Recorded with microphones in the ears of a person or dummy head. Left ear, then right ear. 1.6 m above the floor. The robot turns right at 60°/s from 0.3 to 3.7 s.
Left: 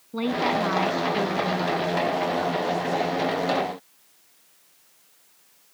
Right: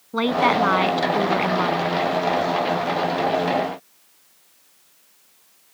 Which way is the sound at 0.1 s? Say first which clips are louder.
Right 6 dB; 135° right.